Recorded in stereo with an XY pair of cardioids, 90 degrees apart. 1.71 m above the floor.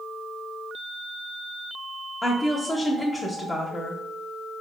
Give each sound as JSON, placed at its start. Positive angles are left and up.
{"t": 2.2, "sound": "a woman speaking", "azimuth_deg": 20, "distance_m": 0.7}